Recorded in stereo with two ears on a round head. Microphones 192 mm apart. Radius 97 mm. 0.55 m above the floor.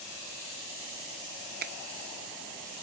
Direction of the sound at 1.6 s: 40° right (ahead or behind).